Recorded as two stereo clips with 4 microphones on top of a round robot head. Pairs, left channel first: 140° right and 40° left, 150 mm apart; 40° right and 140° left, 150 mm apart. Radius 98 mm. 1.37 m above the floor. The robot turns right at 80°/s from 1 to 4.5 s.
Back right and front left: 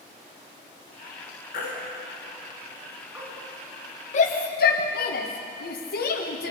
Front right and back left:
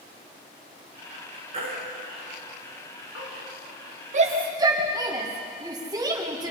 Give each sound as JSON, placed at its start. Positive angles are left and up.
{"t": 1.5, "sound": "a baby crying", "azimuth_deg": -170, "distance_m": 5.5}
{"t": 4.1, "sound": "a shout", "azimuth_deg": 180, "distance_m": 1.6}